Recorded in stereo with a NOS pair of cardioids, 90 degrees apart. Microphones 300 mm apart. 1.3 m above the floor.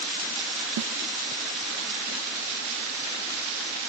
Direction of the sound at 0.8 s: 55° right.